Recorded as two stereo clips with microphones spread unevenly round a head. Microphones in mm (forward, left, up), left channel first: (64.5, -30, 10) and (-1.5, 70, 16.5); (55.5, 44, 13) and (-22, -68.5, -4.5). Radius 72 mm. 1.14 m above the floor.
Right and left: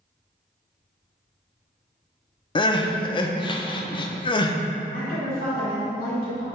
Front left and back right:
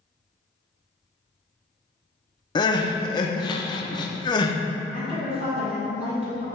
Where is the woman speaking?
80° right, 2 m.